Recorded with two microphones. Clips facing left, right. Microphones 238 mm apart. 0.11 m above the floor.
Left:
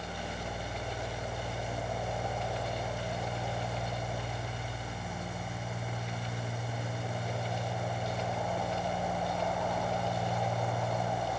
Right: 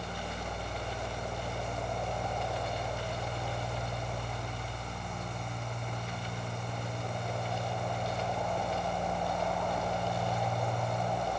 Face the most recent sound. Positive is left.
No sound to turn to.